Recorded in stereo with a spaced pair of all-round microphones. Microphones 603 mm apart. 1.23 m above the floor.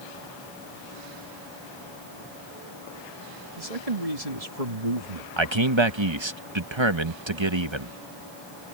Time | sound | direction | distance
3.6 | a man speaking | 75° right (ahead or behind) | ?
5.4 | a man speaking | 50° right (ahead or behind) | ?